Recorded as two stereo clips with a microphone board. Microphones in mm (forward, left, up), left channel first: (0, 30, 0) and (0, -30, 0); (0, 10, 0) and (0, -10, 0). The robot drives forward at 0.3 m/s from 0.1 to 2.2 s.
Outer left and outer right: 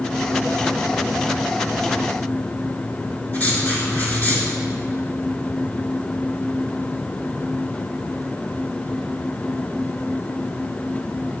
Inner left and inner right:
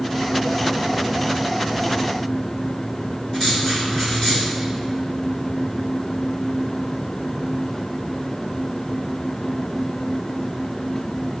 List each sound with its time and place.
3.3 s writing: 30° left (ahead or behind), 3 m